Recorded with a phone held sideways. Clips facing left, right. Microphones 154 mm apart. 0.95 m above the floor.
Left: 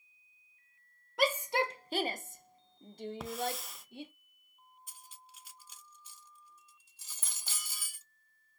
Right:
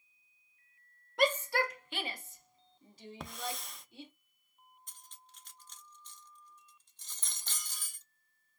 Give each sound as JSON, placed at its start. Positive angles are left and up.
{"t": 1.2, "sound": "a shout", "side_deg": 0, "distance_m": 0.5}
{"t": 3.2, "sound": "a hiss", "side_deg": 5, "distance_m": 0.7}
{"t": 4.9, "sound": "cutlery clinking", "side_deg": 5, "distance_m": 0.6}